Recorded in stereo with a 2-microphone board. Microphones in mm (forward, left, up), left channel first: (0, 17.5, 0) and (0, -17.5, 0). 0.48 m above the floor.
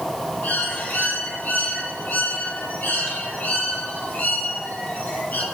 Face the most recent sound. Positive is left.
turn(degrees=70)  # may be behind; listen again after turning